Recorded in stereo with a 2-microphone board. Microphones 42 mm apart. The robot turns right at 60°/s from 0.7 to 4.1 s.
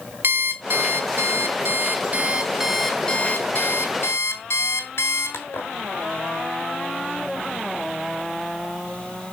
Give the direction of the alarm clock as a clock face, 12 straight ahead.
4 o'clock.